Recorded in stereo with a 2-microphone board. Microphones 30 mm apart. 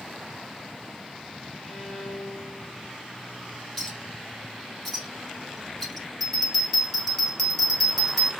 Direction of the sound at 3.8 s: 5° left (ahead or behind).